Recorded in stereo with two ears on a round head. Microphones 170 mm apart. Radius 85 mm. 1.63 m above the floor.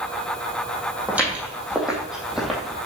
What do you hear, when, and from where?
1.1 s footsteps: 10° right (ahead or behind), 3 m; by 2.9 s centre (ahead or behind), 2 m